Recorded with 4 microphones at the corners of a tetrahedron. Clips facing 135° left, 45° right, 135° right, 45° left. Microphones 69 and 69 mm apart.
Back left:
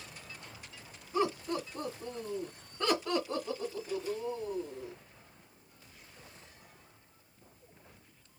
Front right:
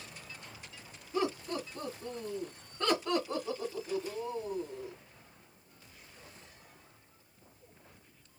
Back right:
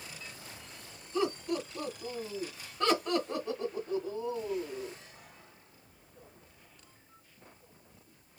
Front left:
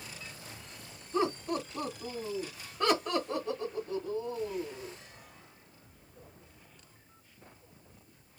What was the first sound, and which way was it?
Laughter, 85° left.